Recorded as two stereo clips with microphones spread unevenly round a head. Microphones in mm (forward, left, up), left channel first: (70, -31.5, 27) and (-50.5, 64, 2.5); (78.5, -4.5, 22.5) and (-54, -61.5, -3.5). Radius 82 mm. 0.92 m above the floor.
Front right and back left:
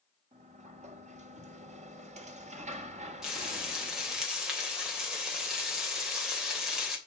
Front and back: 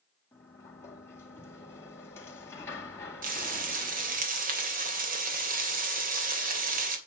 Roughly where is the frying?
Behind right.